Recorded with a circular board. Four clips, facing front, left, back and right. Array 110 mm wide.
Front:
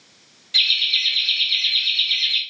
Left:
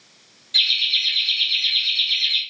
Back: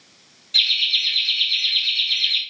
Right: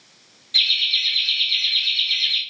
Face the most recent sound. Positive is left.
turn(degrees=-30)